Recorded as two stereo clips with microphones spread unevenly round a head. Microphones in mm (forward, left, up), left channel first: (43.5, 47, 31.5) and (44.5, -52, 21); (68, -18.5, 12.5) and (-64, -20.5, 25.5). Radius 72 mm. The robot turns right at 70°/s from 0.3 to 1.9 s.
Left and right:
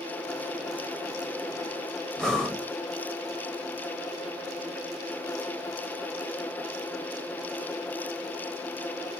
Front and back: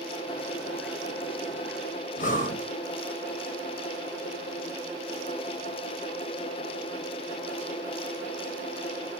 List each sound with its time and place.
2.2 s breathing: 5° left, 1.2 m